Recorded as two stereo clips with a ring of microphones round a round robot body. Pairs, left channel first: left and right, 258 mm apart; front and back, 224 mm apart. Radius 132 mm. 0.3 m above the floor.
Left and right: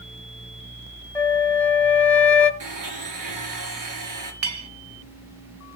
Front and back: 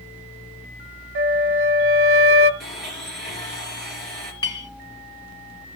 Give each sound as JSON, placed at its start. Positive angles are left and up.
{"t": 1.1, "sound": "a flute", "azimuth_deg": 175, "distance_m": 1.3}
{"t": 2.6, "sound": "a blender", "azimuth_deg": -90, "distance_m": 5.0}
{"t": 4.4, "sound": "a clink", "azimuth_deg": -75, "distance_m": 1.2}